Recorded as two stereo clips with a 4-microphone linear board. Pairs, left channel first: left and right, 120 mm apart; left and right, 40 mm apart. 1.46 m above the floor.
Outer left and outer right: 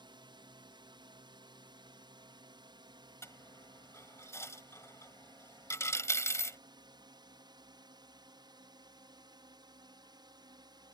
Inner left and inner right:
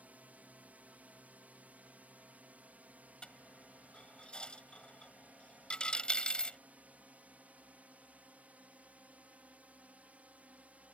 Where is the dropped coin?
25° left (ahead or behind).